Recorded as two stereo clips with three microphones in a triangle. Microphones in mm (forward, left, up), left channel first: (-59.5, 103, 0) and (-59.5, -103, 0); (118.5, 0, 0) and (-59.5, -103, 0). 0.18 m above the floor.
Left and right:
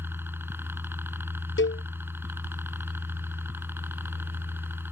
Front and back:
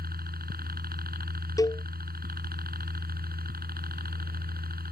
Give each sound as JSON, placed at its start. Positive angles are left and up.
{"t": 0.0, "sound": "a helicopter", "azimuth_deg": -165}
{"t": 1.6, "sound": "a cowbell", "azimuth_deg": 100}